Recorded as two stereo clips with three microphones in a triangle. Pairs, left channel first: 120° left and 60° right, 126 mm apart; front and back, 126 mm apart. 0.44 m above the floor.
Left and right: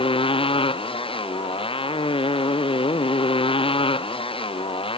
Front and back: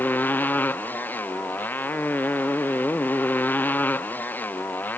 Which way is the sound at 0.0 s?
75° left.